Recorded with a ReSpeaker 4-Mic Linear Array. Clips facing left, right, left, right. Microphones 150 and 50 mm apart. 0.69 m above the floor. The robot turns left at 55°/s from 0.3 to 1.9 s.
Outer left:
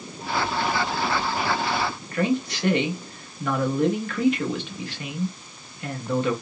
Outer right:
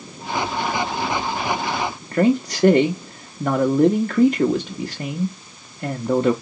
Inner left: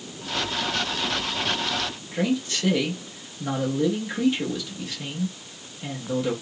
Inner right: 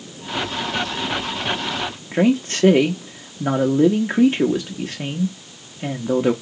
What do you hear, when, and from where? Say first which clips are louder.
2.1 s a man speaking: outer right 7 dB, inner right 8 dB; 45° right (ahead or behind), 0.6 m